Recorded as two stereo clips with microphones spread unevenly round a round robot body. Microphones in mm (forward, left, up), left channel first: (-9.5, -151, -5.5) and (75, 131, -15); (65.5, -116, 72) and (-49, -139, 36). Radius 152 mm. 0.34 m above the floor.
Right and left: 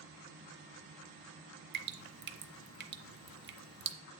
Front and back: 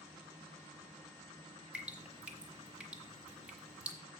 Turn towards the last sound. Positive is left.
turn(degrees=125)